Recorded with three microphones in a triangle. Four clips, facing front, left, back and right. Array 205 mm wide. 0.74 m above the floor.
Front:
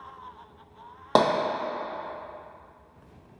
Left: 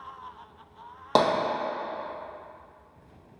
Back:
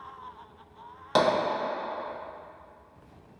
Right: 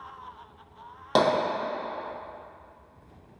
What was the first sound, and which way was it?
Tapping, 15° left.